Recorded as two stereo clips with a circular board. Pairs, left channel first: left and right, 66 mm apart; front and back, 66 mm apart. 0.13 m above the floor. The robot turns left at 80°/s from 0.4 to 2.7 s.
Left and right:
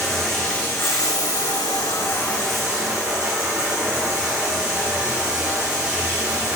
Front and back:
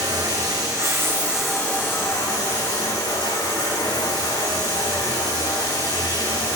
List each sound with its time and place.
0.0 s running water: 175° left, 1.0 m; by 6.5 s 10° right, 1.0 m